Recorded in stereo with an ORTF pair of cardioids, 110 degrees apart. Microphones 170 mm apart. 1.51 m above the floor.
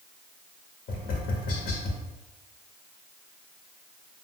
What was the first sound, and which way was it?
Tapping, 60° left.